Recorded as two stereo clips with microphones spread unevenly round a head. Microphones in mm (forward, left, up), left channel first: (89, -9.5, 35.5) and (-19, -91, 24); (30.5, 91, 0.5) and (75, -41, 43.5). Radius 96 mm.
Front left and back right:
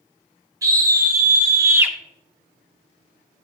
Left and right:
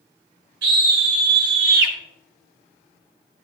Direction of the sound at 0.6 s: 80° right.